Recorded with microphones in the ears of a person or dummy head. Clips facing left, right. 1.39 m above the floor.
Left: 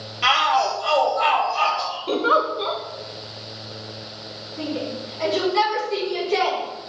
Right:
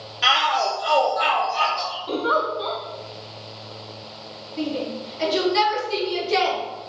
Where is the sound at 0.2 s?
5° right (ahead or behind), 0.9 m; by 2.0 s 25° right (ahead or behind), 2 m.